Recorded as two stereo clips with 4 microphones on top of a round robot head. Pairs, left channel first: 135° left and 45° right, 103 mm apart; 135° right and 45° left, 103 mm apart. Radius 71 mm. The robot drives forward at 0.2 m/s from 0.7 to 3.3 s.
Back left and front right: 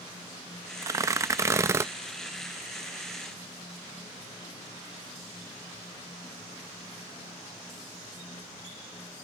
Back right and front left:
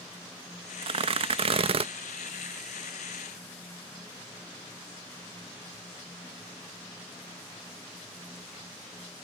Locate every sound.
0.8 s tearing paper: 15° left; by 1.9 s 20° left